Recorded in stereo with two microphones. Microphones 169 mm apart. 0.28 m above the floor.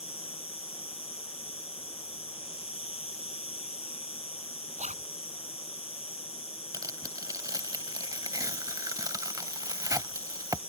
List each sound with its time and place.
0.0 s an insect: 40° left (ahead or behind)
4.8 s a zipper: 45° right (ahead or behind)
6.7 s tearing paper: 25° right (ahead or behind)